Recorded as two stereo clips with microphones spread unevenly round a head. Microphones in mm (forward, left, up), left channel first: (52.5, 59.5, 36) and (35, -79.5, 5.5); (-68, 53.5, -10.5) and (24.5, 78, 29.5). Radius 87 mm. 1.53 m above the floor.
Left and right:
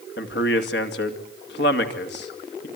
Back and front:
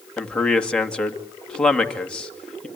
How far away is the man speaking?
About 2.5 m.